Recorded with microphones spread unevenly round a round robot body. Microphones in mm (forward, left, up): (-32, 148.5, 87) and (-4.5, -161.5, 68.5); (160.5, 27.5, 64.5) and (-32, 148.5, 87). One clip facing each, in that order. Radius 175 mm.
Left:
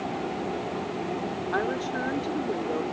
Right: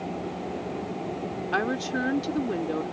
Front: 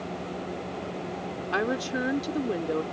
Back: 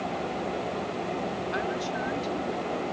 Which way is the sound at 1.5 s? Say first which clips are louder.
Right 2 dB, front 3 dB; 45° right.